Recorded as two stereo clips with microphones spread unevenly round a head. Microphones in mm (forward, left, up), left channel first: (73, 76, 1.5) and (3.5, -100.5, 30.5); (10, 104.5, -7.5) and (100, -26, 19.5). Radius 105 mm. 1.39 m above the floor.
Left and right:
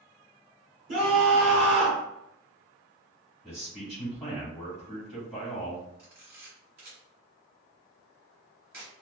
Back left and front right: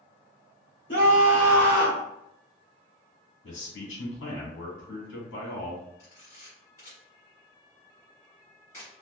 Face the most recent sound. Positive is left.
turn(degrees=-155)